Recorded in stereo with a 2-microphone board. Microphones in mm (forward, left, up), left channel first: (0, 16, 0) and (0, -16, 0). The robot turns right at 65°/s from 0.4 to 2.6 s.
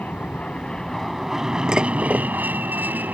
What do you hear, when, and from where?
0.0 s an aircraft: 130° left; by 3.1 s 90° right
1.7 s dishes clattering: 160° right; by 2.3 s 120° right